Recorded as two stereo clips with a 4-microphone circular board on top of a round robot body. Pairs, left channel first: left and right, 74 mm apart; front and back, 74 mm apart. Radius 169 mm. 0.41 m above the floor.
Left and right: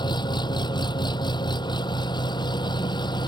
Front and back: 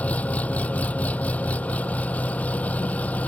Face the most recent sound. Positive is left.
turn(degrees=70)